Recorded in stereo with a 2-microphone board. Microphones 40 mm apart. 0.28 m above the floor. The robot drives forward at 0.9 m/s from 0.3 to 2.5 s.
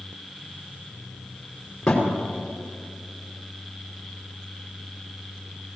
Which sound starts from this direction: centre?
A thud, at 1.9 s.